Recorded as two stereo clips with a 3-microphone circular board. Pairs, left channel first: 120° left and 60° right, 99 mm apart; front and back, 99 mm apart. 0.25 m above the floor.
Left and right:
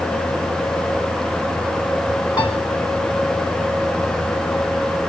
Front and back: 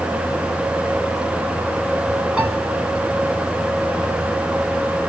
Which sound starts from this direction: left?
A piano, at 2.4 s.